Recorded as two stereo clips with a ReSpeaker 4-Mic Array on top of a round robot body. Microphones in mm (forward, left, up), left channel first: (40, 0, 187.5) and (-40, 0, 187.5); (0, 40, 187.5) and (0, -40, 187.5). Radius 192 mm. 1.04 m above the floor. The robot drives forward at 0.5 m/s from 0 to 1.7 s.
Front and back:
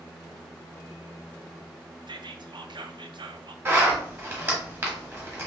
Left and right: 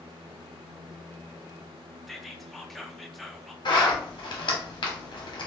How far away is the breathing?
I don't hear breathing.